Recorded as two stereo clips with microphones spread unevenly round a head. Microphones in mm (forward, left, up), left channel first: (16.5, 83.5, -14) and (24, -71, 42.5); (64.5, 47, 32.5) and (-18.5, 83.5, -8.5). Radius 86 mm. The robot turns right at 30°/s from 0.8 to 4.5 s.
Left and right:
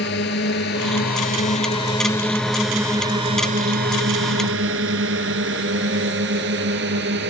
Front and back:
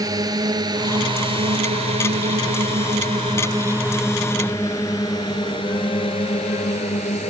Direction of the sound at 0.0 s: 110° left.